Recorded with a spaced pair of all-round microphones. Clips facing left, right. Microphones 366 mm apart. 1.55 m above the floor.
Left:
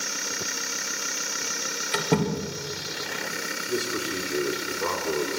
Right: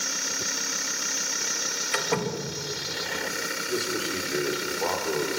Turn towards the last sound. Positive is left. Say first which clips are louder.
# left 1 dB
turn(degrees=15)  # may be behind; listen again after turning